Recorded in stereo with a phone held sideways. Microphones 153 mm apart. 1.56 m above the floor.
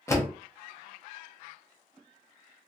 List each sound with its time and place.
0.1 s a door slam: 20° left (ahead or behind), 0.6 m